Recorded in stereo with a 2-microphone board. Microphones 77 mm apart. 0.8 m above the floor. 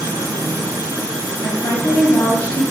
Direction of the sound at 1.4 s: 60° left (ahead or behind).